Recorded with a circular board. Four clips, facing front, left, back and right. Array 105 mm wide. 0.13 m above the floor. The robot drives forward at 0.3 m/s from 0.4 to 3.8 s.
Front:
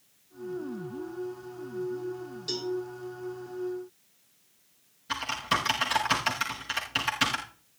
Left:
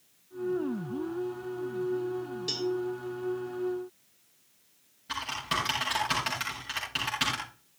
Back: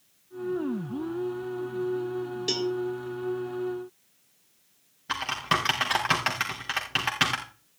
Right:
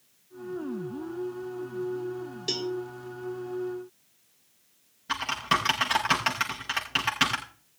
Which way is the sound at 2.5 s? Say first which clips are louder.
Even, back 4 dB; 155° right.